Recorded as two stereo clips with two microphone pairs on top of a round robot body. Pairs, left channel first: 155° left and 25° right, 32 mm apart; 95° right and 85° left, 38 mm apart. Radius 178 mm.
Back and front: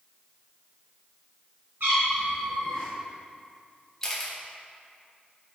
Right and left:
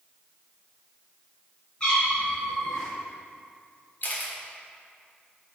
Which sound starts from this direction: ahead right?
A cat meowing, at 1.8 s.